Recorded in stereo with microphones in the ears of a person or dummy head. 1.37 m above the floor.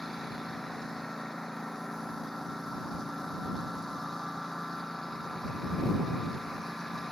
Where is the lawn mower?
5° left (ahead or behind).